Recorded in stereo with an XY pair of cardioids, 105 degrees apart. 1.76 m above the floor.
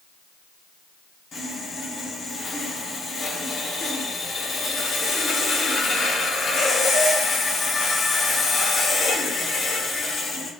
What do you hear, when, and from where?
1.3 s sawing: 50° left, 1.1 m